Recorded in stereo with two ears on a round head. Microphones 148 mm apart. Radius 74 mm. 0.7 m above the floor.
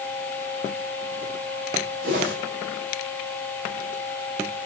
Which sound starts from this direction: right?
A whoosh, at 2.0 s.